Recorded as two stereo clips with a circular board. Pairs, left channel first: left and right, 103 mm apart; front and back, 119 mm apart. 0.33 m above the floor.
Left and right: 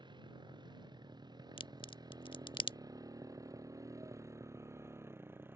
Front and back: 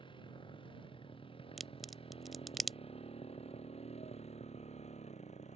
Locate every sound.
0.0 s a motorcycle: 45° right; by 5.6 s 20° right
1.6 s a crack: 90° left